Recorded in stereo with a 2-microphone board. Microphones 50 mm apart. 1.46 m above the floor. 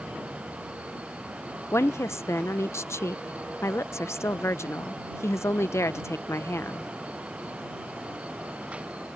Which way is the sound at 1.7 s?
65° left (ahead or behind).